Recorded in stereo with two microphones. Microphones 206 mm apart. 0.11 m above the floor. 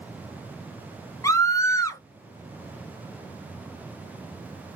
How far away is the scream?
About 1.2 m.